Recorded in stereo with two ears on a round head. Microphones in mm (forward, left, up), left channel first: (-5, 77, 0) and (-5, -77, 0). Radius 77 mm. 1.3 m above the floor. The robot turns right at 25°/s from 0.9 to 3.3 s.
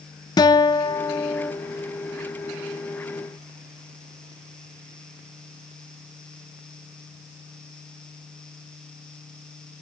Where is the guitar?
25° left (ahead or behind), 0.6 m; by 1.5 s 10° left (ahead or behind), 0.6 m.